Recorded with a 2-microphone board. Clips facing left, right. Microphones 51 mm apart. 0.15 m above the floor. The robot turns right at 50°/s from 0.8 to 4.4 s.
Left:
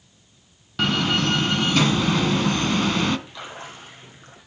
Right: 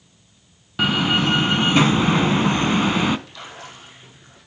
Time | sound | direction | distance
0.8 | a door slam | 10° right (ahead or behind) | 0.7 m
3.3 | a splash | 15° left | 4.5 m